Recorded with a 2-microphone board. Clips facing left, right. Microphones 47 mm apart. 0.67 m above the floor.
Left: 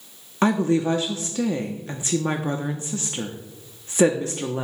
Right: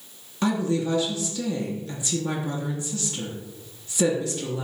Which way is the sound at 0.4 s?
40° left (ahead or behind).